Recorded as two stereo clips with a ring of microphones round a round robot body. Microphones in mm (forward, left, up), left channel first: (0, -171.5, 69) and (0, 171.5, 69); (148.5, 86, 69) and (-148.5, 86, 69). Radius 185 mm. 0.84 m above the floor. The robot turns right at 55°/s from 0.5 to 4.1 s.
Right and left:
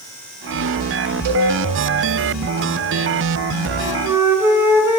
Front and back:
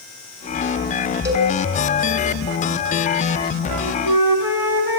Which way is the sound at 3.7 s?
150° left.